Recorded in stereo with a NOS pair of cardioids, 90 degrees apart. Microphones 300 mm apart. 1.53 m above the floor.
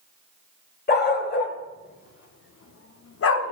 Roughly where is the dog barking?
Ahead left.